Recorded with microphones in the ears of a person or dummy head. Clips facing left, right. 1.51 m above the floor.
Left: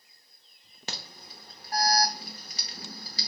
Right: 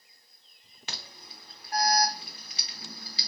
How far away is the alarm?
About 0.6 m.